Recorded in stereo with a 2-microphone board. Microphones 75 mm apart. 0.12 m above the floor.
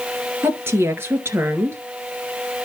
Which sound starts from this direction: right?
A woman speaking, at 0.4 s.